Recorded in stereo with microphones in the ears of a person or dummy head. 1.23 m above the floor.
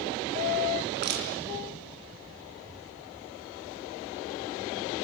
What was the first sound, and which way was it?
Crushing, 55° right (ahead or behind).